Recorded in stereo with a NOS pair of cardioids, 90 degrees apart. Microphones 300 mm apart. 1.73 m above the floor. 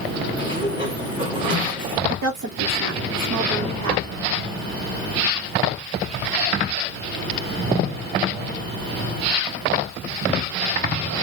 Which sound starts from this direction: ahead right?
A woman speaking, at 2.1 s.